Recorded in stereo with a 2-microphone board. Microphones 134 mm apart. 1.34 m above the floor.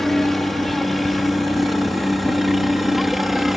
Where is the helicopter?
Centre (ahead or behind).